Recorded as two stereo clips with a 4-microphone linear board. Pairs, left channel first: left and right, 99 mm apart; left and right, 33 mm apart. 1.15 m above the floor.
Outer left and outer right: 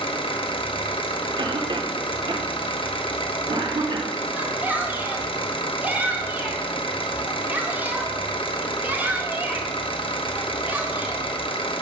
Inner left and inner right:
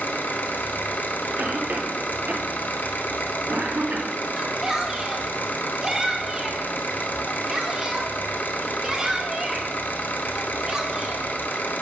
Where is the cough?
55° right (ahead or behind), 0.8 m.